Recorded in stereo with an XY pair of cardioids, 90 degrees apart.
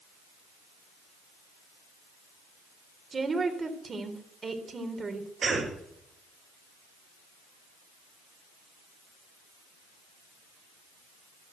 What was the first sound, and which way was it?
A woman speaking, 40° right.